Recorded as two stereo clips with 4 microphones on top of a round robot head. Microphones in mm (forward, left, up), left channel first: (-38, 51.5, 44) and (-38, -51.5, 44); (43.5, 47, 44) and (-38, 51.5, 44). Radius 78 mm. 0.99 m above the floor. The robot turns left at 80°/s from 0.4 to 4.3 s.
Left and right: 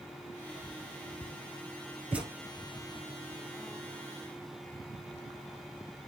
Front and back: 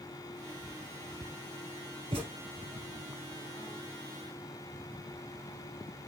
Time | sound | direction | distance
2.1 | a thud | 160° right | 1.6 m